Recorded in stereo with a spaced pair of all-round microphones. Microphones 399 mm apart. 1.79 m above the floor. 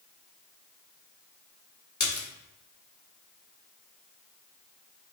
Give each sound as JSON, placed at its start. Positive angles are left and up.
{"t": 2.0, "sound": "a splash", "side_deg": 50, "distance_m": 0.5}